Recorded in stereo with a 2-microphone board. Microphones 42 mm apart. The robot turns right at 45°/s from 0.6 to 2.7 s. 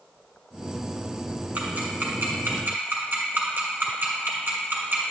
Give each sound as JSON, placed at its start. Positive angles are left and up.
{"t": 1.6, "sound": "ticking", "side_deg": -40, "distance_m": 2.0}